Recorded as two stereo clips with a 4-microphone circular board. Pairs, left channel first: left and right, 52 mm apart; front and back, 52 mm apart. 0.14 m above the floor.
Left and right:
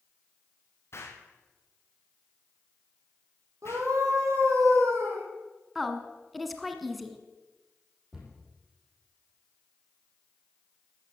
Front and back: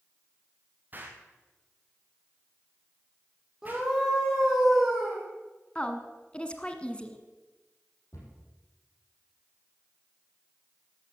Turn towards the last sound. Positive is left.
turn(degrees=-5)